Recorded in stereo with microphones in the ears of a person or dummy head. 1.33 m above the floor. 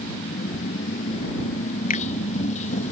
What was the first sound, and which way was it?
A motorcycle, 40° left (ahead or behind).